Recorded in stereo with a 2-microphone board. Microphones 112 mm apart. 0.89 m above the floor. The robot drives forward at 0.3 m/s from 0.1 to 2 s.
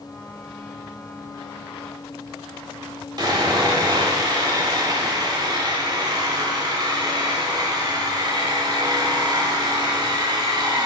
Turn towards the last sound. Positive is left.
turn(degrees=-35)  # may be behind; listen again after turning